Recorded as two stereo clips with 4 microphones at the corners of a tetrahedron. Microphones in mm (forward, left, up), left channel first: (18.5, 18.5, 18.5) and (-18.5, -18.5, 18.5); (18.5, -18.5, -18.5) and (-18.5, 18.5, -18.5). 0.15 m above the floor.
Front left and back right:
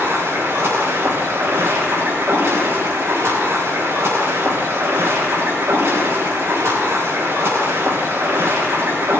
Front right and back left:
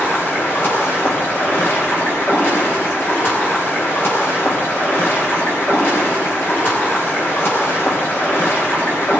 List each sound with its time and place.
0.0 s running water: 95° right, 5 m